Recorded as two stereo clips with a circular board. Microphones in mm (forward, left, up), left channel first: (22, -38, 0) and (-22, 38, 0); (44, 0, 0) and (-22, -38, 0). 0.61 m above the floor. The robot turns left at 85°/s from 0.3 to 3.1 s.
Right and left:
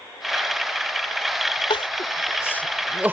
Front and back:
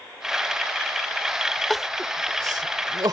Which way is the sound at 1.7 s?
55° right.